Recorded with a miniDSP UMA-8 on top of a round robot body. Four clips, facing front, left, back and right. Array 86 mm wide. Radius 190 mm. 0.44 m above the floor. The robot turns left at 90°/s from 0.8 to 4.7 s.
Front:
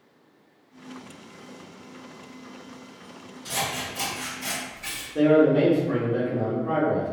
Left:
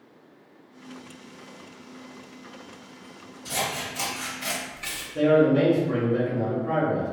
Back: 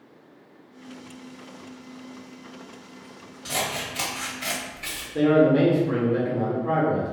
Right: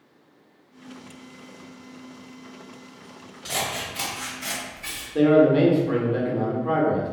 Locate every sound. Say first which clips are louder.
3.5 s scissors: even, back 1 dB; 115° right, 1.4 m; by 5.0 s 130° left, 1.4 m
5.2 s a man speaking: right 3 dB, even; 110° right, 1.5 m